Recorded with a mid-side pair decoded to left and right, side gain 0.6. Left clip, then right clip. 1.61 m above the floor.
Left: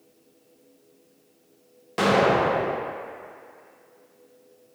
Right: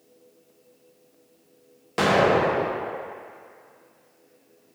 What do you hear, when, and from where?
2.0 s an explosion: 15° right, 0.6 m